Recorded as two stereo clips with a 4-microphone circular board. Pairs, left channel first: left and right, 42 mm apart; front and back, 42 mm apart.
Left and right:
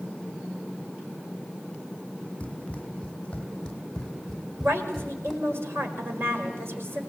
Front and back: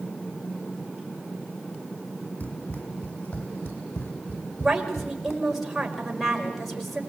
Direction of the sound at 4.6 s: 95° right.